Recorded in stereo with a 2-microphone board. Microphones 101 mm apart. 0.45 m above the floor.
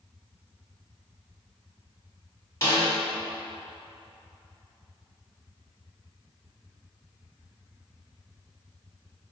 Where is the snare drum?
30° left (ahead or behind), 1.9 m.